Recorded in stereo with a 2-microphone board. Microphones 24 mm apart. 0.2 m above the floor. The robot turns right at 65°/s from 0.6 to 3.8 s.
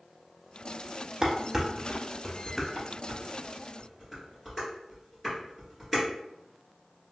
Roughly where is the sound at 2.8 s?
Right.